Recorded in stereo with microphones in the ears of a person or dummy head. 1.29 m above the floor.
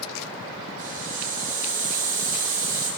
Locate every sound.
0.8 s a hiss: 30° right (ahead or behind), 5.5 m